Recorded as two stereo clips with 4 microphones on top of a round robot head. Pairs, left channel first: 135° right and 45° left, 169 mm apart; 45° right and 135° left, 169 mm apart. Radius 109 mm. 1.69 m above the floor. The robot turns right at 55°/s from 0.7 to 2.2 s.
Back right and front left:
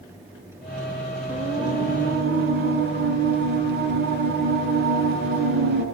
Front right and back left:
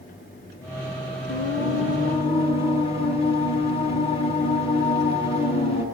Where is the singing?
35° right, 8 m; by 5.8 s 15° left, 8 m.